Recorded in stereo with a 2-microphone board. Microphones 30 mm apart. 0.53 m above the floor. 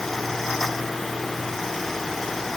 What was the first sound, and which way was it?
Only background noise.